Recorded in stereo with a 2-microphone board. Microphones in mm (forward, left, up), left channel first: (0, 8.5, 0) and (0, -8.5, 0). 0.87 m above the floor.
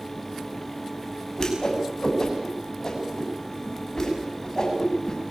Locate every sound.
1.4 s a whoosh: 30° left (ahead or behind), 7 m